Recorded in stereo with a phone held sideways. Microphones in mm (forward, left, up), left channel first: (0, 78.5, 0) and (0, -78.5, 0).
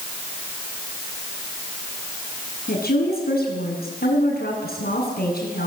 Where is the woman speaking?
85° left, 8.5 m.